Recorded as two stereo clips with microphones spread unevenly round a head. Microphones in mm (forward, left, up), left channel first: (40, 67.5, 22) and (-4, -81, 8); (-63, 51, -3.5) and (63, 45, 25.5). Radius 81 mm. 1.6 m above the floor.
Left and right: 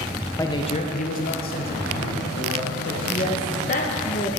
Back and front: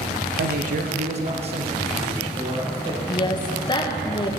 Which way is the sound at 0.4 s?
Straight ahead.